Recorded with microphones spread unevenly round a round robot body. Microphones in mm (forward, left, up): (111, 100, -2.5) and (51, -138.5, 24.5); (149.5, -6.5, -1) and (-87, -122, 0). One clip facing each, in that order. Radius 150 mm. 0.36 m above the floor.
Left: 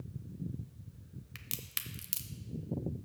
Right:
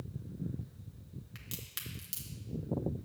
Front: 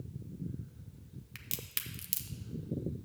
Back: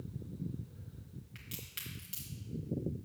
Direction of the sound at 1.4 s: 35° left.